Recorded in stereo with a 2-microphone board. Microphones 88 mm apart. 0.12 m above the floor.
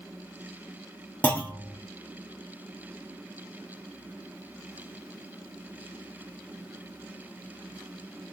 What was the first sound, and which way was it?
A clunk, 15° left (ahead or behind).